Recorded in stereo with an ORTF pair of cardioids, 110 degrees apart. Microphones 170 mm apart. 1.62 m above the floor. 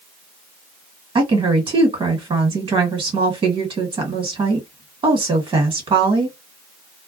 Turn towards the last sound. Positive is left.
turn(degrees=-30)